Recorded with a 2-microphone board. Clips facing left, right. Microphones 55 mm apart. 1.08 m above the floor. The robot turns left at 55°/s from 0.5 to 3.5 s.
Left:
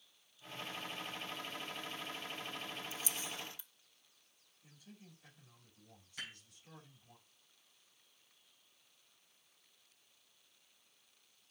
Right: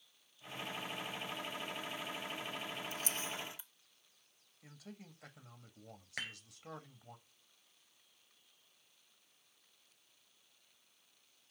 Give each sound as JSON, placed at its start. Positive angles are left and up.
{"t": 2.9, "sound": "a camera shutter", "side_deg": -55, "distance_m": 0.6}
{"t": 4.6, "sound": "a man speaking", "side_deg": -85, "distance_m": 1.5}
{"t": 6.2, "sound": "dishes clattering", "side_deg": -85, "distance_m": 3.5}